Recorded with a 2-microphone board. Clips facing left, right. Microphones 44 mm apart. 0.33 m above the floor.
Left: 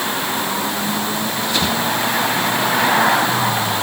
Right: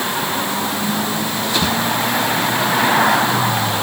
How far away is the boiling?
No boiling in this recording.